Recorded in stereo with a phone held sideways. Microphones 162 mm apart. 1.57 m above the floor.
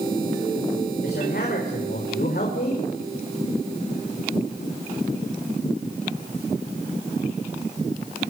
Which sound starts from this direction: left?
A man speaking, at 1.0 s.